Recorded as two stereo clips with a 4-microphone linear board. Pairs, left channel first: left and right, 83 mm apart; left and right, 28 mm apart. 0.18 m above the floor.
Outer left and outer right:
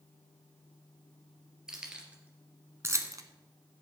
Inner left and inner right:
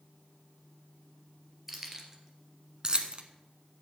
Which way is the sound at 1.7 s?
5° right (ahead or behind).